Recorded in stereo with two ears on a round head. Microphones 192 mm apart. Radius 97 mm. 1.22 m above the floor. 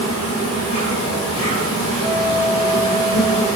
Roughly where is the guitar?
Left.